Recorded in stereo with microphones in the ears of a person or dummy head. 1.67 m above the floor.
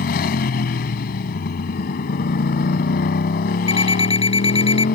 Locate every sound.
0.0 s a motorcycle: 50° left (ahead or behind)
3.7 s an alarm clock: 25° left (ahead or behind)